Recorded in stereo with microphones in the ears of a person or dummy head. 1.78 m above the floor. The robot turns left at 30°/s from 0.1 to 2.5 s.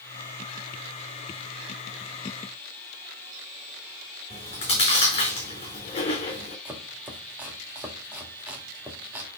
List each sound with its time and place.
4.3 s chewing: 30° left (ahead or behind), 4 m
6.7 s chopping: 15° right (ahead or behind), 2 m